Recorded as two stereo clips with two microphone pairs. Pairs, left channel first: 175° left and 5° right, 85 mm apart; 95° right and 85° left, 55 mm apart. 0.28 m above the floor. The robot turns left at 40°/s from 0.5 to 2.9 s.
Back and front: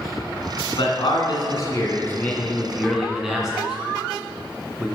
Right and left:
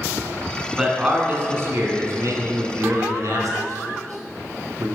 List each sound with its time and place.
0.8 s a man speaking: 160° left, 2.5 m; by 4.9 s 75° left, 2.5 m